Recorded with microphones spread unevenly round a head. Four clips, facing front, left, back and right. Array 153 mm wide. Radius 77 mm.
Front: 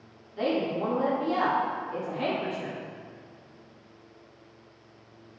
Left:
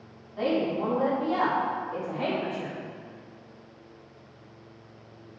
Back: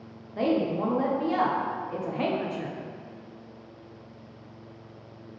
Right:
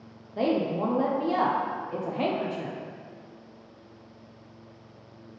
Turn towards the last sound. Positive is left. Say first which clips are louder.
# right 1 dB, back 2 dB
turn(degrees=-120)